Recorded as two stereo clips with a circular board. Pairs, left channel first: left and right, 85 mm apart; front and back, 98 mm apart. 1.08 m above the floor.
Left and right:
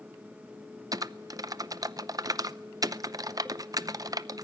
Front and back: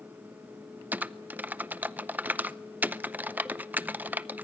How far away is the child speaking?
No child speaking in this recording.